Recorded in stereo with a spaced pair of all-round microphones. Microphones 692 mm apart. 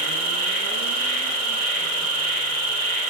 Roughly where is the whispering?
I don't hear whispering.